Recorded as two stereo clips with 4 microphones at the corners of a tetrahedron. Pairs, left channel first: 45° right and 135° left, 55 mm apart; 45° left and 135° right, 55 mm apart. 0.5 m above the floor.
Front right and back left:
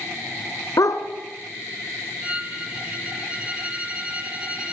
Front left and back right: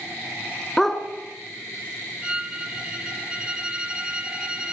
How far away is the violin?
About 1.2 m.